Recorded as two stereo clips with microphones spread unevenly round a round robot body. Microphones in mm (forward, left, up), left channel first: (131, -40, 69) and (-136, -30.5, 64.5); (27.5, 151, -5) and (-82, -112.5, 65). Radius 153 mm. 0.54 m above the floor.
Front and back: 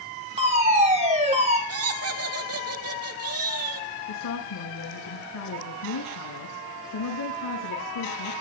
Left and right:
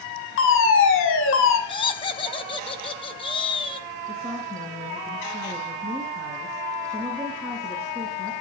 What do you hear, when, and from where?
0.4 s a fire alarm: 110° left, 6.5 m
1.7 s laughter: 140° left, 3.5 m
4.1 s a woman speaking: 20° right, 6.5 m